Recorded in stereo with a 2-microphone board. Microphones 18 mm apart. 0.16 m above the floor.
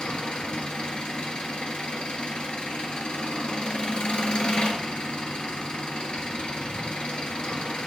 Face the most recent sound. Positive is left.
turn(degrees=65)  # may be behind; listen again after turning